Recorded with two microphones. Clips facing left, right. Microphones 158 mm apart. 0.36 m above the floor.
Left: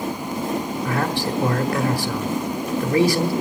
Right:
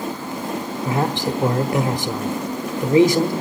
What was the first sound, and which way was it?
A man speaking, 20° right (ahead or behind).